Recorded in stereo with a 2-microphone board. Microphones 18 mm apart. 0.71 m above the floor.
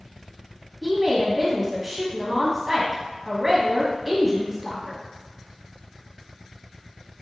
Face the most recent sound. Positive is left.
turn(degrees=-5)  # may be behind; listen again after turning